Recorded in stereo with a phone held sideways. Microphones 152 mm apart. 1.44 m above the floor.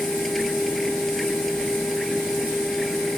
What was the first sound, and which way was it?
A machine running, centre (ahead or behind).